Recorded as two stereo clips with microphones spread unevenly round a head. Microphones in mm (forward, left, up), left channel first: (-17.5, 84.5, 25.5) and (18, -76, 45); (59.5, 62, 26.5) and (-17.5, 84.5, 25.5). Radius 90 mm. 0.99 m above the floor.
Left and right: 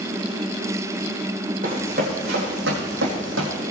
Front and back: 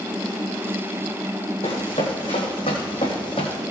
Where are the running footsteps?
40° right, 4 m; by 3.6 s 75° right, 3 m.